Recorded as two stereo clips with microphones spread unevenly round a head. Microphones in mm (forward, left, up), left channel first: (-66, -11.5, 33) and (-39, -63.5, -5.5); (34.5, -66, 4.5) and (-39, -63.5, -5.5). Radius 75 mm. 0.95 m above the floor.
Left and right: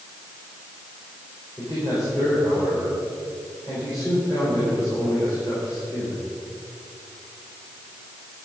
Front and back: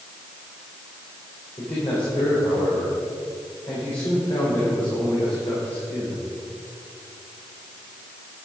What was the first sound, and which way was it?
A man speaking, 50° left.